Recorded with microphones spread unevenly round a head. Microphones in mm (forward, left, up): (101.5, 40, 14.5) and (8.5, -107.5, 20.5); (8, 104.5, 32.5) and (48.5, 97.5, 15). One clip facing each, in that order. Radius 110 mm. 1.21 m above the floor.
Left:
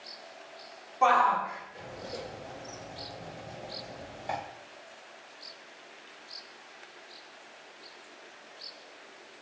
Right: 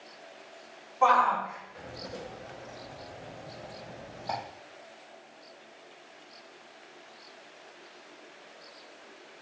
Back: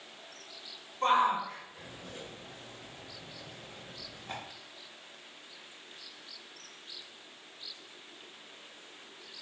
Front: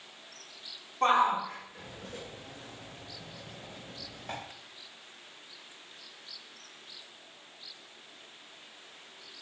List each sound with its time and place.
1.0 s a shout: 5° right, 4 m; by 4.4 s 15° right, 7.5 m